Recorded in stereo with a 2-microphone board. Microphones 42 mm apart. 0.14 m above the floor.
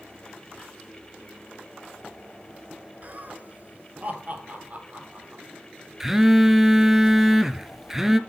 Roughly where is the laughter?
Right.